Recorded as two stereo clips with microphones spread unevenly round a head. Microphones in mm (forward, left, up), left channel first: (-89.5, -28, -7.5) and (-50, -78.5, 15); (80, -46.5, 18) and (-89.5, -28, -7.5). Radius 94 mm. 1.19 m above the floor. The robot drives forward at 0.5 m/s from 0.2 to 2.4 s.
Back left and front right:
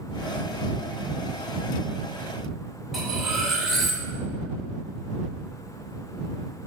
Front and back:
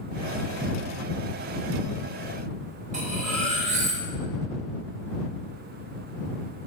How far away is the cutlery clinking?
About 2.5 m.